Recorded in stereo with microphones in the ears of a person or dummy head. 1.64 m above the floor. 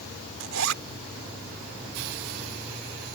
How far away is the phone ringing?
I don't hear a phone ringing.